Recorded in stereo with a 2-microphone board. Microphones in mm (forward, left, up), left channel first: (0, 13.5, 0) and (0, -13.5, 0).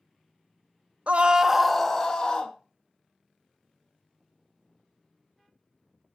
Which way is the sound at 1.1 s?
55° right (ahead or behind).